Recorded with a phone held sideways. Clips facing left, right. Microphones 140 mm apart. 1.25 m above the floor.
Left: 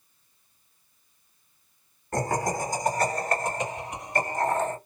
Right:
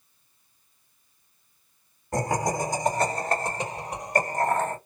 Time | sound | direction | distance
2.1 | laughter | 10° right (ahead or behind) | 2.5 m